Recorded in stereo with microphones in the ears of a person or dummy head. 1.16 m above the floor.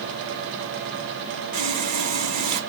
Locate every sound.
1.5 s sawing: 45° right (ahead or behind), 2 m